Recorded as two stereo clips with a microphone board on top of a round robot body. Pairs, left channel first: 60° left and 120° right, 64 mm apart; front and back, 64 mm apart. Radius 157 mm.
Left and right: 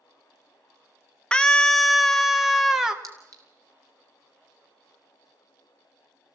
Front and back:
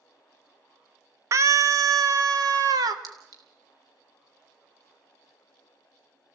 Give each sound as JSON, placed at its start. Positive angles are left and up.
{"t": 1.3, "sound": "a scream", "azimuth_deg": 135, "distance_m": 1.2}
{"t": 3.0, "sound": "a clink", "azimuth_deg": -155, "distance_m": 4.0}